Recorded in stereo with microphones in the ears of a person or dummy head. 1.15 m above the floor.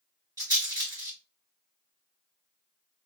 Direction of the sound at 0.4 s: 25° right (ahead or behind).